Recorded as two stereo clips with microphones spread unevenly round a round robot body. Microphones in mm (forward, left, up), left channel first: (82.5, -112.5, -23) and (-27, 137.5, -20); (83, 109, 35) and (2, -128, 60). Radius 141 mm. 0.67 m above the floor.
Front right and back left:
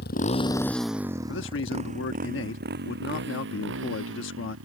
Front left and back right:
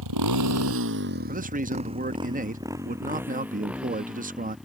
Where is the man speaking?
60° right.